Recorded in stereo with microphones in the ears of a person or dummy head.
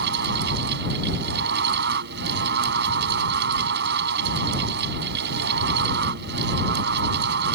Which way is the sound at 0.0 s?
60° right (ahead or behind).